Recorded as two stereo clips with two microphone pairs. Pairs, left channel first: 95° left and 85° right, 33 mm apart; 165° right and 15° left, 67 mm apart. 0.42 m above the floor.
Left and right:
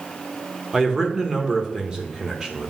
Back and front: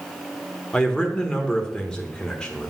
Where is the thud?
No thud in this recording.